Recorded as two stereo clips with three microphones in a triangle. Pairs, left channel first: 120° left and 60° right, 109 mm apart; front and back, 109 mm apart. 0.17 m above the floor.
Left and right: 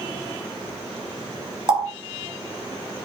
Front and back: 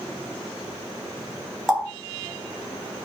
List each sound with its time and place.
1.7 s a running tap: 90° right, 1.7 m